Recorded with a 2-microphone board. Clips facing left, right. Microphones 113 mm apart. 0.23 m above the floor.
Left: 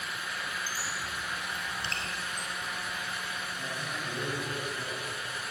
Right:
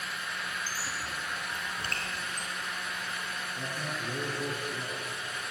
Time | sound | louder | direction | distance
0.7 | a squeak | even | 40° right (ahead or behind) | 1.9 m
3.6 | a man speaking | right 1 dB | 70° right (ahead or behind) | 4.5 m